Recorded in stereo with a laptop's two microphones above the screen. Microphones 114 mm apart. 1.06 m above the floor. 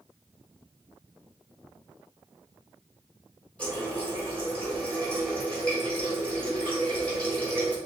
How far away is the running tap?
About 1.9 m.